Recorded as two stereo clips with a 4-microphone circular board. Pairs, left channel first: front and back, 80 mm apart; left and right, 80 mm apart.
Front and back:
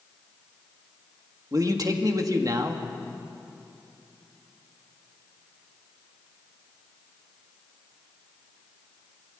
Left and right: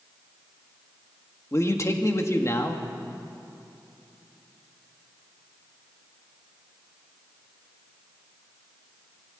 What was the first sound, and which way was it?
A man speaking, 140° left.